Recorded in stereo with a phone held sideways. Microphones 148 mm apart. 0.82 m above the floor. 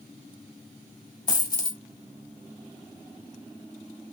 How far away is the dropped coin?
About 2.5 m.